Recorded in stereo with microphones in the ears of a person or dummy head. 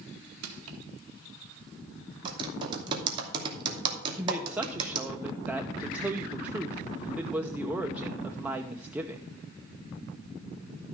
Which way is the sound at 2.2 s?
30° right (ahead or behind).